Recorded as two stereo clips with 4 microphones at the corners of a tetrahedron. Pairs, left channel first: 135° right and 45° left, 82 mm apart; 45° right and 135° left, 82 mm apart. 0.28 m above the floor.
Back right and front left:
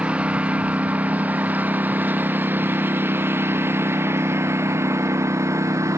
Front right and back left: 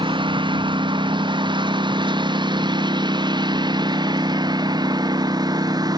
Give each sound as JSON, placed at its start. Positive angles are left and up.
{"t": 0.0, "sound": "a lawn mower", "azimuth_deg": 120}